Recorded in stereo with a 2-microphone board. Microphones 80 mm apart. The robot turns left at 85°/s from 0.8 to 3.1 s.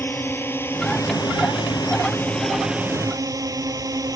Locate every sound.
0.0 s a drone: 30° left (ahead or behind); by 4.2 s 50° right (ahead or behind)